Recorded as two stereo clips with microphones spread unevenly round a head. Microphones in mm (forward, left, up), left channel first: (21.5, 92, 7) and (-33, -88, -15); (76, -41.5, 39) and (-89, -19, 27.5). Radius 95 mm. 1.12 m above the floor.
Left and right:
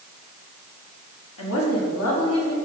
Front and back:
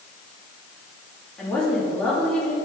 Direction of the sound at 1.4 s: 80° left.